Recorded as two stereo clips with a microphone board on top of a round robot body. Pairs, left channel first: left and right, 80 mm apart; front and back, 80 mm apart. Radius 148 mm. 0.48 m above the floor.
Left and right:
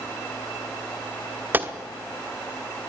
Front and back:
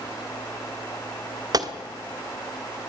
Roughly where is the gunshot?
Behind right.